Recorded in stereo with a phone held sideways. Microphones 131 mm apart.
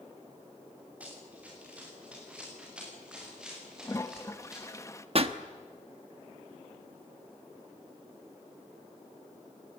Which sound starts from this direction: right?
A pop, at 5.2 s.